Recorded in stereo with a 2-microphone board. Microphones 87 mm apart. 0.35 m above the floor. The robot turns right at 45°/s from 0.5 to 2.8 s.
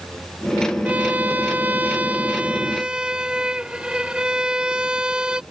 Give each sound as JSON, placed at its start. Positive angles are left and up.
{"t": 0.8, "sound": "a violin", "side_deg": -20}